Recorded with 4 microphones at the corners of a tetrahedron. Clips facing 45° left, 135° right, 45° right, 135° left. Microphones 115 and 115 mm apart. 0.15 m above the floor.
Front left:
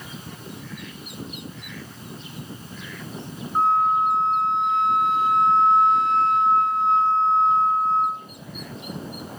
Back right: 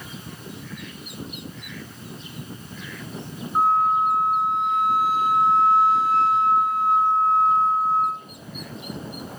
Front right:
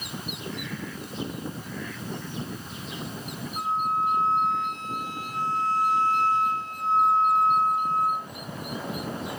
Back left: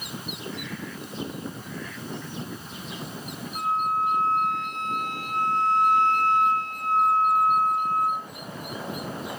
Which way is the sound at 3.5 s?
140° left.